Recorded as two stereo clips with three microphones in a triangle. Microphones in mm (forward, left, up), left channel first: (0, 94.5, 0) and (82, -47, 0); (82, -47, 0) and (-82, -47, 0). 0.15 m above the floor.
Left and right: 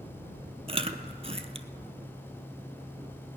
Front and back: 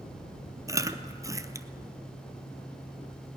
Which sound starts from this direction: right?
Chewing, at 0.7 s.